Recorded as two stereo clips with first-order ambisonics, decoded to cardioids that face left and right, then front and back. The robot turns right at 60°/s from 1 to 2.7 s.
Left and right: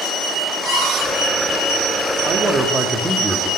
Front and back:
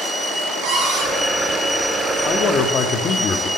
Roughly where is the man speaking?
Ahead right.